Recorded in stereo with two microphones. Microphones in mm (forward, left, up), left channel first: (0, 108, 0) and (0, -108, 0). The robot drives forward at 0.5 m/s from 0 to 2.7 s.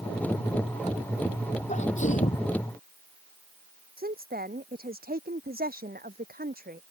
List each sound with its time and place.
1.7 s a sneeze: 35° left (ahead or behind)
4.0 s a woman speaking: 45° right (ahead or behind)